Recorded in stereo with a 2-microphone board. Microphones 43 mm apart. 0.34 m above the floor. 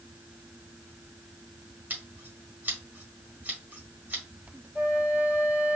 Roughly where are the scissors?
Right.